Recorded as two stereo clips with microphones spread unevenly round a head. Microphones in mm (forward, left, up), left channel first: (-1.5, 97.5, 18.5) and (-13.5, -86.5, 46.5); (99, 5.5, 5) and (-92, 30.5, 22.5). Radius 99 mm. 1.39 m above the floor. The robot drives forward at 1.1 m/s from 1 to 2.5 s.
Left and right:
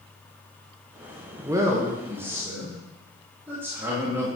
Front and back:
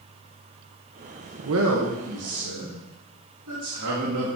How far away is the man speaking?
About 1.0 m.